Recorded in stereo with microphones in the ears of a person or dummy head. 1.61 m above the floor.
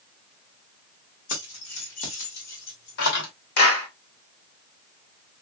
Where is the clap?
60° left (ahead or behind), 1.7 m.